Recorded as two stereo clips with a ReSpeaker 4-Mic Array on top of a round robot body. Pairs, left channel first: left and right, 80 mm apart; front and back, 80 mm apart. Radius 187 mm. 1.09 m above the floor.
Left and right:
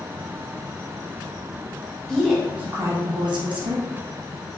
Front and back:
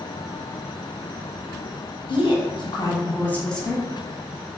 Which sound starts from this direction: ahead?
A woman speaking, at 2.1 s.